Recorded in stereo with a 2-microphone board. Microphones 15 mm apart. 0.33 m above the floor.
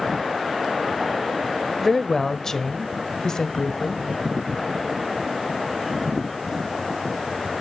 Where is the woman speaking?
25° left (ahead or behind), 1.1 m; by 4.0 s 45° left (ahead or behind), 1.6 m.